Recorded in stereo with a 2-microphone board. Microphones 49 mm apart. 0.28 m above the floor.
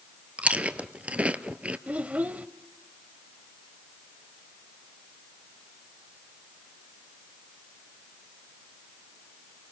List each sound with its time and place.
0.4 s chewing: 25° right (ahead or behind), 1.0 m
1.9 s a child speaking: 30° right (ahead or behind), 0.7 m